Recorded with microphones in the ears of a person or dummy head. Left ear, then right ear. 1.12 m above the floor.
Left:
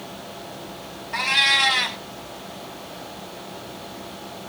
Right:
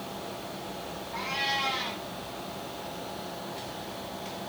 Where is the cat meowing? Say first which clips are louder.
Left 12 dB; 50° left (ahead or behind), 1.4 m.